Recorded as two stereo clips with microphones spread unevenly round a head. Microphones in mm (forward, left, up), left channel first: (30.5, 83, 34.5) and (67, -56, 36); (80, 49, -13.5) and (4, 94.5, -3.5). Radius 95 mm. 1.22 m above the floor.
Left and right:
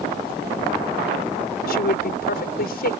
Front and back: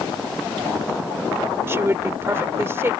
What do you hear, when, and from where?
1.7 s a woman speaking: 90° left